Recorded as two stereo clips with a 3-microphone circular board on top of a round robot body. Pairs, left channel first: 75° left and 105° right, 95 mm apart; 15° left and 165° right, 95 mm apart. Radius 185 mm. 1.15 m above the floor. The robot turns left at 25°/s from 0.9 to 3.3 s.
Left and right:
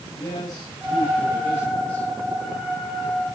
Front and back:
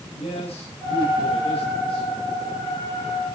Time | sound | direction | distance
0.1 | a man speaking | 20° left | 9 m